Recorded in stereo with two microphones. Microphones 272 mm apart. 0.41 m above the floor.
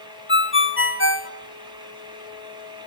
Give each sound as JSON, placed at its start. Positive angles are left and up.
{"t": 0.3, "sound": "a ringtone", "side_deg": 45, "distance_m": 0.9}